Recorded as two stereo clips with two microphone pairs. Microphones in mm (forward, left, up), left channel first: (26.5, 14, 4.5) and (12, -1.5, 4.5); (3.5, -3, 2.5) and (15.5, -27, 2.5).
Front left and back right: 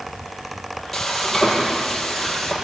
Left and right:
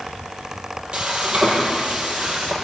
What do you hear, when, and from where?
0.9 s frying: 35° right, 5 m